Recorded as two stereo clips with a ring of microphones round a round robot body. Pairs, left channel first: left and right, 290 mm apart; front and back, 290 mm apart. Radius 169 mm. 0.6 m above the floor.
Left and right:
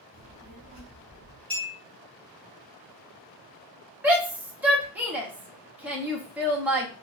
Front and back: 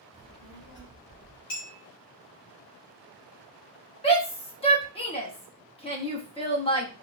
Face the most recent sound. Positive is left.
turn(degrees=-15)